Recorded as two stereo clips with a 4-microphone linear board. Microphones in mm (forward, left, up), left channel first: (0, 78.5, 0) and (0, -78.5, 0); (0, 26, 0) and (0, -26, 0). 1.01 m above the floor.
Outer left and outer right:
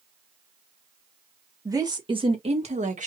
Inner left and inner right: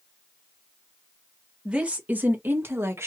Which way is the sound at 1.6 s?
20° right (ahead or behind).